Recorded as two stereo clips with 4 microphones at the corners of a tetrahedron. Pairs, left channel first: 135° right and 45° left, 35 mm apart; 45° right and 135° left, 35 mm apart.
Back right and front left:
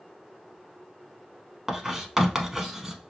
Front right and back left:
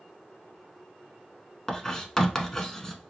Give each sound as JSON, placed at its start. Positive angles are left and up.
{"t": 1.7, "sound": "writing", "azimuth_deg": 0, "distance_m": 0.7}